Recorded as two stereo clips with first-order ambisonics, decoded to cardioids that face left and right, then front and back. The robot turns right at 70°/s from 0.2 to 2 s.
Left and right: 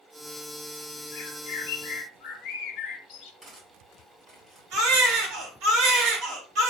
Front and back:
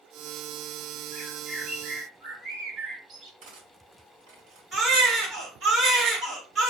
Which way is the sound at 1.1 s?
60° left.